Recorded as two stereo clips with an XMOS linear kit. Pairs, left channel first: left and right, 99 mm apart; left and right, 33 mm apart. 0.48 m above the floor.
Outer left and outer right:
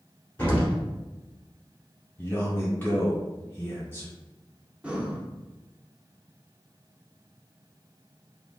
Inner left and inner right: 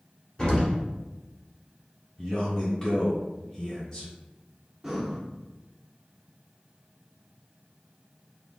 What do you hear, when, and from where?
0.4 s an explosion: 20° left (ahead or behind), 1.3 m
2.2 s a man speaking: 20° left (ahead or behind), 1.2 m
4.8 s breathing: 10° right (ahead or behind), 0.5 m